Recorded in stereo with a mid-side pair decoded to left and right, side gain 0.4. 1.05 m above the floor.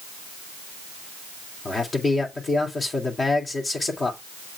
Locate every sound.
1.6 s a man speaking: 40° left, 3 m